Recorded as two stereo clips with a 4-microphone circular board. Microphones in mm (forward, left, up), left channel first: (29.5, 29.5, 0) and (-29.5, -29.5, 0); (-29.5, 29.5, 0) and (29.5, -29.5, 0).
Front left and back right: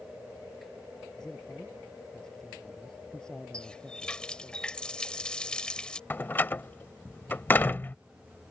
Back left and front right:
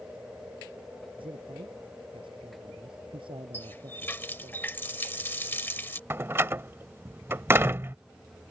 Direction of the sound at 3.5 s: 110° left.